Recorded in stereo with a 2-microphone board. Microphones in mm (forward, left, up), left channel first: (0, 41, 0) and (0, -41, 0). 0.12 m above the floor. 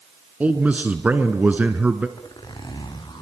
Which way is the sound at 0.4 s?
20° right (ahead or behind).